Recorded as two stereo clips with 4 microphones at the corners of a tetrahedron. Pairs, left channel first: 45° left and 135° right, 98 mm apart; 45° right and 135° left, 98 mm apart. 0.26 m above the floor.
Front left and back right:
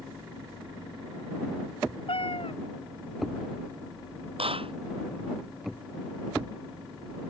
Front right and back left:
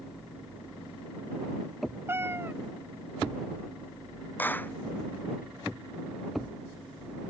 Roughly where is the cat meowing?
Left.